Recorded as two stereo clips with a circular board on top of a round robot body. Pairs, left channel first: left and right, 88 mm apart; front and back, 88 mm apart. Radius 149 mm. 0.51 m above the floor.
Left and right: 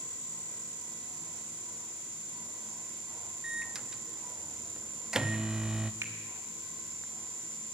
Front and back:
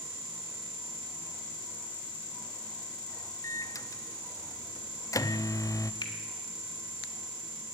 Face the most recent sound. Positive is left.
turn(degrees=-30)